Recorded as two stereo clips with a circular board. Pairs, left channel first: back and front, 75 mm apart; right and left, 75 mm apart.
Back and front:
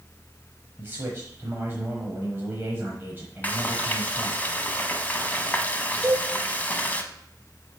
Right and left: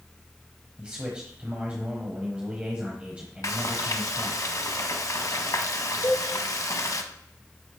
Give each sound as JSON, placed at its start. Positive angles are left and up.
{"t": 0.8, "sound": "a man speaking", "azimuth_deg": 30, "distance_m": 1.1}
{"t": 3.4, "sound": "frying", "azimuth_deg": -115, "distance_m": 0.7}
{"t": 6.0, "sound": "a cowbell", "azimuth_deg": -85, "distance_m": 2.5}